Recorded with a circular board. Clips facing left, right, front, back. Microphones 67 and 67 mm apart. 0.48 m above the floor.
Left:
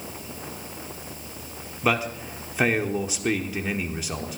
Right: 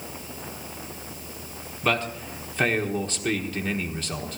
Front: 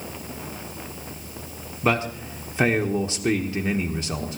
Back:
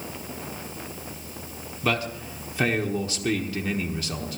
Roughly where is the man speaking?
Ahead left.